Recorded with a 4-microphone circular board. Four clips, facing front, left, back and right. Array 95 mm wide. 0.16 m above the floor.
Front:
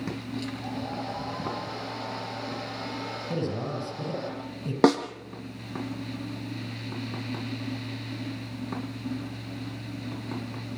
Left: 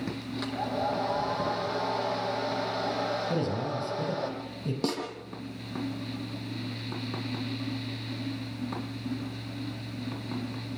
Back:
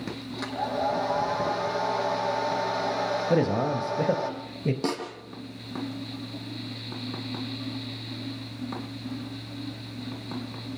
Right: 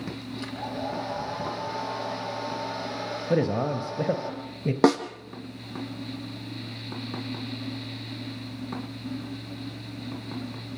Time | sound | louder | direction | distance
0.4 | a hair dryer | left 3 dB, back 10 dB | 145° left | 7 m
3.3 | a man speaking | right 5 dB, back 6 dB | 135° right | 4 m
4.8 | a snare drum | right 12 dB, front 13 dB | 50° right | 3.5 m